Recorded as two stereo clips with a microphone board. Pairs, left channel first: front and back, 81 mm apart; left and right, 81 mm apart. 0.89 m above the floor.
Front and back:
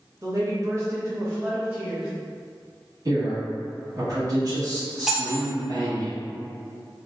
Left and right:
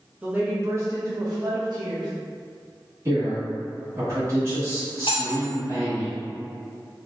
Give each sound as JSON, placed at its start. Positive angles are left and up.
{"t": 0.2, "sound": "a woman speaking", "azimuth_deg": -160, "distance_m": 0.9}
{"t": 3.0, "sound": "a man speaking", "azimuth_deg": -140, "distance_m": 1.4}
{"t": 5.1, "sound": "cutlery clinking", "azimuth_deg": 95, "distance_m": 0.6}